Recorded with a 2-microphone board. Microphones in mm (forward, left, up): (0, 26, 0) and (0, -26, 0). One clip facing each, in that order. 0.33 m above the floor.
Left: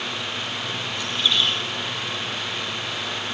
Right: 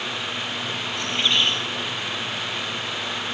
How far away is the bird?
About 5 m.